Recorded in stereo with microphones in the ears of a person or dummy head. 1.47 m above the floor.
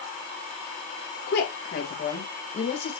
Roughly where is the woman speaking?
Left.